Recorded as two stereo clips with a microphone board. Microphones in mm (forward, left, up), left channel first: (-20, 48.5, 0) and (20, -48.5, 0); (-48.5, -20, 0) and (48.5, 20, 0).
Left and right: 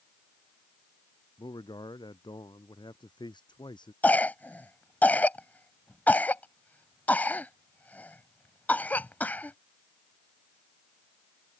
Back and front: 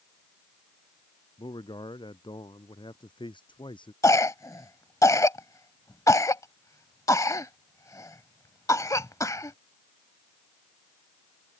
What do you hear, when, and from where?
1.4 s a man speaking: 160° left
4.0 s a cough: 175° left